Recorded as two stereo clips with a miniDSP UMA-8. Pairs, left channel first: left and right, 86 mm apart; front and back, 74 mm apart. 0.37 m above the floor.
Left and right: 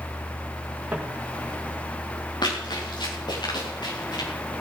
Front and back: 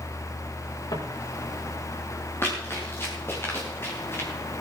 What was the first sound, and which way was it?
Footsteps, 15° right.